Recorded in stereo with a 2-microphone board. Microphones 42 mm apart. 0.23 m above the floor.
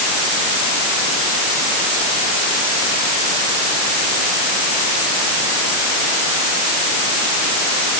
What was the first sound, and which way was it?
Only background noise.